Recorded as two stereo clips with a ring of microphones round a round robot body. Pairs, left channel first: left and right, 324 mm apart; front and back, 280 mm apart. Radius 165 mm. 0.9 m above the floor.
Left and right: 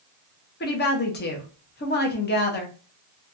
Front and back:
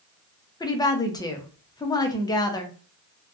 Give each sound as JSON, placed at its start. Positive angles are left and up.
{"t": 0.6, "sound": "a woman speaking", "azimuth_deg": 65, "distance_m": 0.7}